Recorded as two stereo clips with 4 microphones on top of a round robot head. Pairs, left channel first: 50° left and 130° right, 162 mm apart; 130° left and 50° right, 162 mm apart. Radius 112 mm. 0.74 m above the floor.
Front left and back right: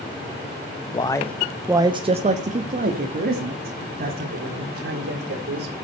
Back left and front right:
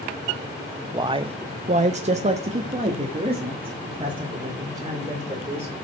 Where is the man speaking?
5° left, 0.8 m; by 5.7 s 115° right, 3.5 m.